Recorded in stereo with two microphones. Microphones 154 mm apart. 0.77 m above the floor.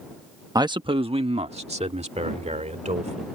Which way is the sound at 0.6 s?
25° right (ahead or behind).